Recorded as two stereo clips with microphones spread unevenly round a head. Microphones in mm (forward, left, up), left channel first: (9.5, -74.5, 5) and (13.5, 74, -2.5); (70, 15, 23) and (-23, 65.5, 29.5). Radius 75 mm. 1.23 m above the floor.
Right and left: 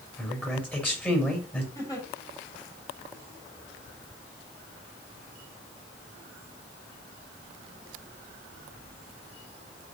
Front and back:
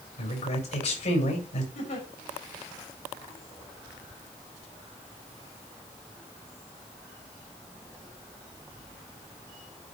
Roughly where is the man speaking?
Ahead.